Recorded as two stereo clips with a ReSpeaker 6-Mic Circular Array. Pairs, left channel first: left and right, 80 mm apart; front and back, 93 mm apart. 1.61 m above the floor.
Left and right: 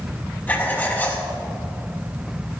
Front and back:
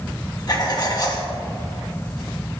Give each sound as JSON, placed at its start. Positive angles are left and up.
{"t": 0.5, "sound": "writing", "azimuth_deg": 25, "distance_m": 1.4}